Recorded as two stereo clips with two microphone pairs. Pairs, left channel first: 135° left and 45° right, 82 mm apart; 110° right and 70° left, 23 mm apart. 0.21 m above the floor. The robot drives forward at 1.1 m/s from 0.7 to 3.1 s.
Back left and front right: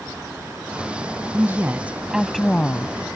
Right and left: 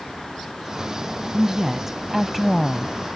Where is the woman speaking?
Straight ahead; by 3.0 s 175° left.